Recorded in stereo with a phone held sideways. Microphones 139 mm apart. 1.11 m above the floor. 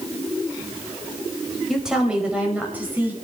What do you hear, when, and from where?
1.7 s a woman speaking: 5° right (ahead or behind), 4.5 m; by 3.1 s 15° right (ahead or behind), 5 m